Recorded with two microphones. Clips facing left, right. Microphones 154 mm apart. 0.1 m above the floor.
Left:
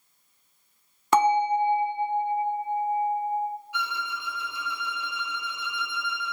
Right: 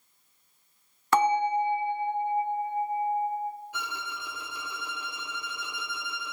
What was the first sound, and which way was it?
A bell, 20° left (ahead or behind).